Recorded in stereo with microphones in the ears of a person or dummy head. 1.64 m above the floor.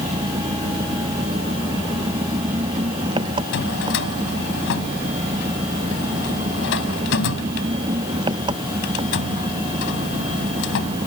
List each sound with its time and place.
0.0 s an engine running: 25° right (ahead or behind)
3.5 s a drawer: 60° left (ahead or behind)